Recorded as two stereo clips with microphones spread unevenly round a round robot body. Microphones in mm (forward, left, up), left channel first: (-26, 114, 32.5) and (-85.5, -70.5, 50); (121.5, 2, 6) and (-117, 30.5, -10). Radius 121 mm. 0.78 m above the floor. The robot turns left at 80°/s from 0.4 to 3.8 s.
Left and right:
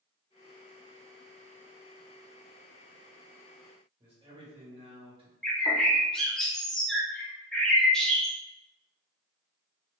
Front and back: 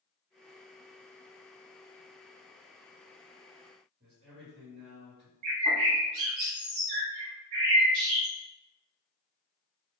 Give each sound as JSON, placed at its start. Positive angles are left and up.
{"t": 4.0, "sound": "a man speaking", "azimuth_deg": -165, "distance_m": 1.4}
{"t": 5.4, "sound": "a bird", "azimuth_deg": 160, "distance_m": 0.7}